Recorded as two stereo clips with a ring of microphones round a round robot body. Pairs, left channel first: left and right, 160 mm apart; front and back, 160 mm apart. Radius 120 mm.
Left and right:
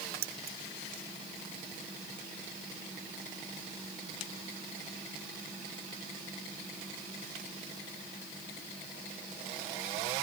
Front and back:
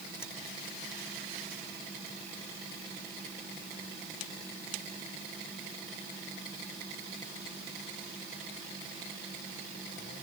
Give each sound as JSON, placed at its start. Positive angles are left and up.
{"t": 0.2, "sound": "keys jangling", "azimuth_deg": -80}